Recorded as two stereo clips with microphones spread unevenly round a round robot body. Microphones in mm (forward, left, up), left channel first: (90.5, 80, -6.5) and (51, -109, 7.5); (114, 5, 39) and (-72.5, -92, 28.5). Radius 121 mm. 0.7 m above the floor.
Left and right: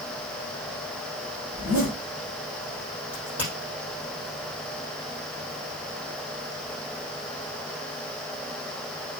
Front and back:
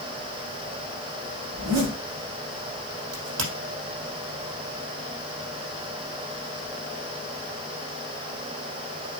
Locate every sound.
1.5 s a zipper: straight behind, 3.5 m
3.1 s a crack: 175° left, 4.5 m